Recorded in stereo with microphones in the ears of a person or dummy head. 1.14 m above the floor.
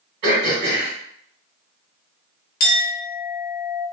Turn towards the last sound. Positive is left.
turn(degrees=50)  # may be behind; listen again after turning